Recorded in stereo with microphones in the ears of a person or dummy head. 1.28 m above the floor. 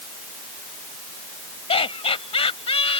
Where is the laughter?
25° left (ahead or behind).